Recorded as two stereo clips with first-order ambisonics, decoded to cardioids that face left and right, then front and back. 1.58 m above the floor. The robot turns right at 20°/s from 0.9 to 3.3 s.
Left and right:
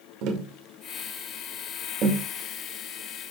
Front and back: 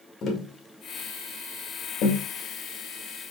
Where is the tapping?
60° right, 2.0 m; by 2.3 s 30° right, 2.0 m.